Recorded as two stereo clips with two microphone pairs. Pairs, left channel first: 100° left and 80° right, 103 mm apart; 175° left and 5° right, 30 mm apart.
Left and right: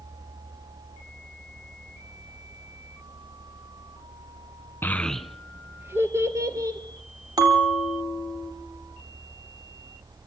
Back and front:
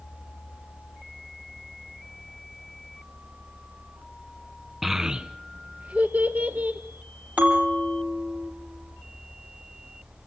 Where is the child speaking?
55° left, 0.7 m; by 6.8 s 25° right, 2.0 m.